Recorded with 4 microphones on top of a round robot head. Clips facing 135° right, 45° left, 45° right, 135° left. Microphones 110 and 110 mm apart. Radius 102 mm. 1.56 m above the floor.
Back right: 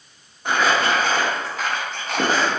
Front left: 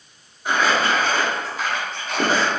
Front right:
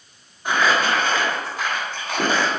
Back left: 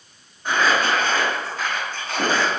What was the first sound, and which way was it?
Crumpling, 120° right.